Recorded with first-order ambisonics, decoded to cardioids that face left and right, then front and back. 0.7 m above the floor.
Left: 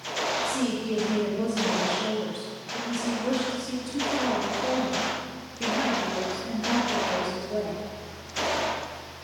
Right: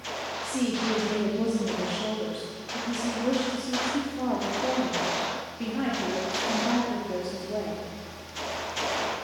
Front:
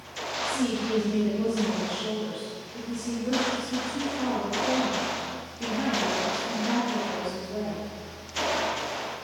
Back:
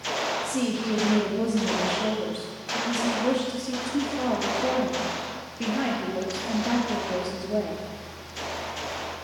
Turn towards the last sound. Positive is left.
turn(degrees=-150)